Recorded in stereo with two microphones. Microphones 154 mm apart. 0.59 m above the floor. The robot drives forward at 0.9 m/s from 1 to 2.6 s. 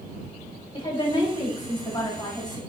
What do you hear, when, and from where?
0.7 s a woman speaking: 35° left (ahead or behind), 4 m; by 2.6 s 25° left (ahead or behind), 5 m